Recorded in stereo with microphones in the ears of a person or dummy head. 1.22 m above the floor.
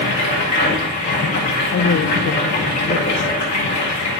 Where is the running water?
40° left (ahead or behind), 2.0 m.